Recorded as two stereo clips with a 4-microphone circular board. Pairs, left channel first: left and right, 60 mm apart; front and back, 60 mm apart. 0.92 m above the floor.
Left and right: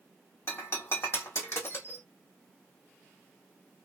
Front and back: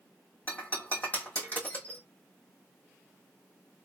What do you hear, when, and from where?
0.5 s breaking glass: 55° left, 1.8 m